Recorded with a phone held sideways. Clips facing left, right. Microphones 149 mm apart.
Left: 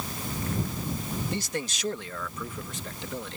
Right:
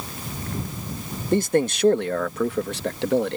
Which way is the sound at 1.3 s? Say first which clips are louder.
Right 12 dB; 50° right (ahead or behind).